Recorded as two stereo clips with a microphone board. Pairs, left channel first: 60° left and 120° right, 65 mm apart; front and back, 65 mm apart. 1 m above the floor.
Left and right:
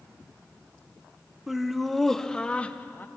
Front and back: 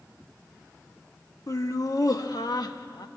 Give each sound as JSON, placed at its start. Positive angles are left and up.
{"t": 1.5, "sound": "laughter", "azimuth_deg": -35, "distance_m": 1.5}